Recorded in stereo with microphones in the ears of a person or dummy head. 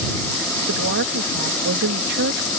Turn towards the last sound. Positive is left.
turn(degrees=-55)  # may be behind; listen again after turning